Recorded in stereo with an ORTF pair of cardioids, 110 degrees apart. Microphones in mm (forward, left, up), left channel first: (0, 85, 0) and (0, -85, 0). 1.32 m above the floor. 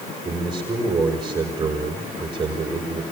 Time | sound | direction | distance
0.2 | a man speaking | 25° right | 5.5 m